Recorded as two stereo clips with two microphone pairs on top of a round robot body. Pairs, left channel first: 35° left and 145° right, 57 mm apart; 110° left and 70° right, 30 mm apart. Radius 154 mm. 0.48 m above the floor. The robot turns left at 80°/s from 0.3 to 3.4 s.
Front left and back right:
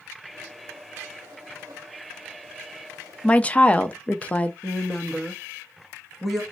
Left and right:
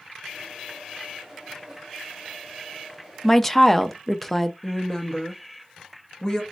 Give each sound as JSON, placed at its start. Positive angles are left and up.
{"t": 3.2, "sound": "a woman speaking", "azimuth_deg": 75, "distance_m": 0.7}
{"t": 4.6, "sound": "a woman speaking", "azimuth_deg": 120, "distance_m": 1.4}